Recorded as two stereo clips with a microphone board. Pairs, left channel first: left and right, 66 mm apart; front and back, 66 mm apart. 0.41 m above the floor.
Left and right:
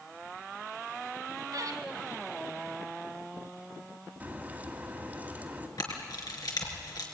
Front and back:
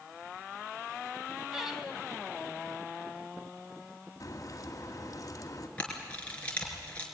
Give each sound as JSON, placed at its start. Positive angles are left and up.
{"t": 1.5, "sound": "laughter", "azimuth_deg": -95, "distance_m": 2.5}
{"t": 4.2, "sound": "a crack", "azimuth_deg": -30, "distance_m": 2.0}
{"t": 5.8, "sound": "a camera shutter", "azimuth_deg": 70, "distance_m": 3.5}